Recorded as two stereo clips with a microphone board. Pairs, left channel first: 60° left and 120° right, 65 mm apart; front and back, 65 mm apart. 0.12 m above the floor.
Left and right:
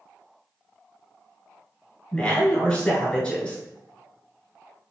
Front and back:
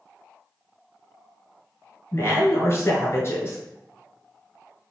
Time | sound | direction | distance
2.1 | a woman speaking | 10° right | 1.7 m